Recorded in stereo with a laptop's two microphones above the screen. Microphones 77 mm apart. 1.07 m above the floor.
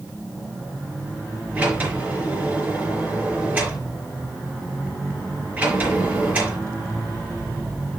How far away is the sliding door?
About 4 m.